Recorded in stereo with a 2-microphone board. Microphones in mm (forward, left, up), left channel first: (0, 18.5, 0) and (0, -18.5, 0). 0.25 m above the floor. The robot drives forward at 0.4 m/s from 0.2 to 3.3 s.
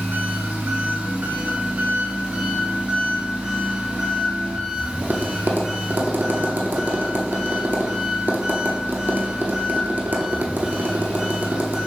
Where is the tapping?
60° right (ahead or behind), 0.8 m.